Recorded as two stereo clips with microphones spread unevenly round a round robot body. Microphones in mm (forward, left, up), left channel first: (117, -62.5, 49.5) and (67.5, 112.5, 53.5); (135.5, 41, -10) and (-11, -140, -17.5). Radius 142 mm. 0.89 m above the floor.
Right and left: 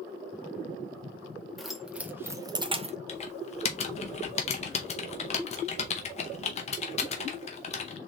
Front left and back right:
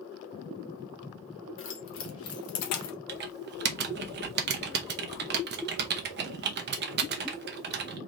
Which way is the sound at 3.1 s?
115° right.